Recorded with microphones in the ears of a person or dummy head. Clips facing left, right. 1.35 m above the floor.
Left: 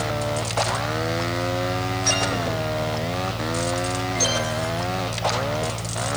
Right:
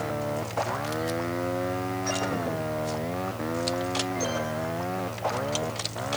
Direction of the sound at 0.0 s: 85° left.